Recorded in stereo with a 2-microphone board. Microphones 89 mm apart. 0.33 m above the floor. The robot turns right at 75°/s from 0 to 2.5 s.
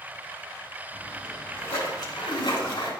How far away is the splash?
About 3 m.